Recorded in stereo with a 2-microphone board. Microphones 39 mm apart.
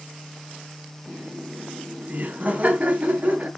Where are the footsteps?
I don't hear footsteps.